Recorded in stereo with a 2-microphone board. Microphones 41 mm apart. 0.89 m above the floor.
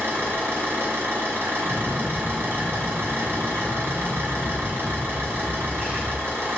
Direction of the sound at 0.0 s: 70° right (ahead or behind).